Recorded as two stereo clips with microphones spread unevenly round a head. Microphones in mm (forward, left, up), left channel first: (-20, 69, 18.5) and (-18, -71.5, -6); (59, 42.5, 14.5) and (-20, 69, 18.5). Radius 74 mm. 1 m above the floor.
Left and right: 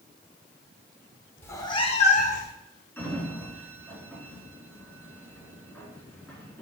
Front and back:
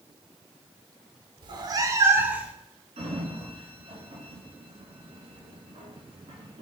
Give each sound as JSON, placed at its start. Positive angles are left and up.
{"t": 1.4, "sound": "a cat meowing", "azimuth_deg": 155, "distance_m": 0.9}
{"t": 3.0, "sound": "a sliding door", "azimuth_deg": 165, "distance_m": 3.0}